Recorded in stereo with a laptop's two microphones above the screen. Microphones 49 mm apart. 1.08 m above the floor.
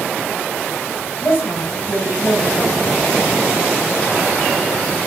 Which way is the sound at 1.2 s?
65° left (ahead or behind).